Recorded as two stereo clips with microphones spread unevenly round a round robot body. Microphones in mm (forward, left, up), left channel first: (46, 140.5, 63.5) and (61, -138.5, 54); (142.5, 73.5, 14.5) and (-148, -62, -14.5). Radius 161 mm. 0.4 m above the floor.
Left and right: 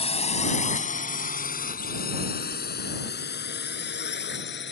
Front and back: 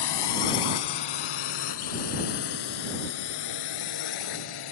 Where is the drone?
25° left; by 4.7 s 40° left.